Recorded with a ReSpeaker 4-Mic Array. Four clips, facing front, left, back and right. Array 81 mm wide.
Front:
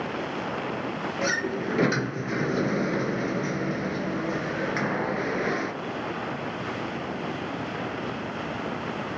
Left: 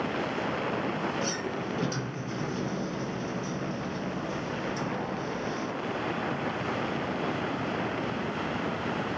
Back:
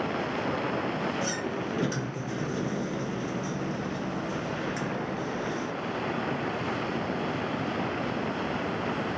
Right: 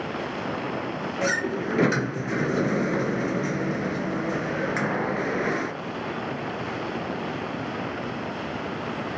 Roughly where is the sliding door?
Ahead right.